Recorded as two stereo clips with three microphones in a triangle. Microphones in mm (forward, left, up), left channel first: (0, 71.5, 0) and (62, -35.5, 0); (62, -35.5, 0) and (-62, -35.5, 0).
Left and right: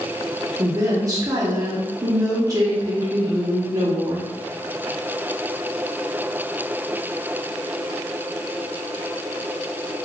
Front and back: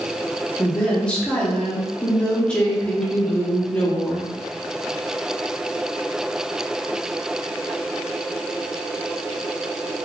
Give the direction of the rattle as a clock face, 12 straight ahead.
No rattle in this recording.